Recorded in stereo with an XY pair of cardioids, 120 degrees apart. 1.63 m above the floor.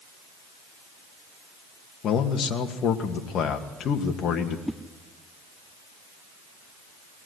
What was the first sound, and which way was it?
A man speaking, 55° left.